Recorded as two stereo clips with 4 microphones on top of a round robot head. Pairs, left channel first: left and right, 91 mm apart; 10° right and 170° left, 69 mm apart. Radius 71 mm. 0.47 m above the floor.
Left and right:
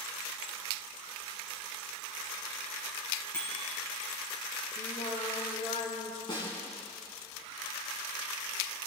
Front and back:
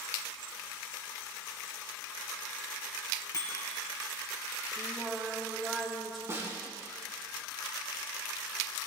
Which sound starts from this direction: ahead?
A bicycle bell, at 3.3 s.